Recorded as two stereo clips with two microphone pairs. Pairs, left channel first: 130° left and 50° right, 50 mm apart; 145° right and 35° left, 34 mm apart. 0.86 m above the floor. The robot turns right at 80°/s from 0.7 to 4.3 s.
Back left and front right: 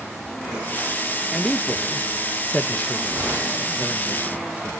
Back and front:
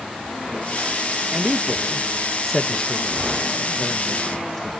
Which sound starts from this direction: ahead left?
A man speaking, at 1.3 s.